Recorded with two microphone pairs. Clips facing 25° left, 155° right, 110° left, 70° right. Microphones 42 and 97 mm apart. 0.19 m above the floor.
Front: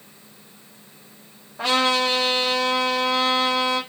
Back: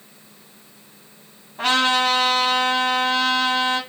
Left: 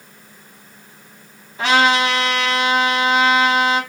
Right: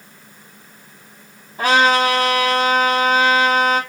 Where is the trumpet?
120° right, 2 m.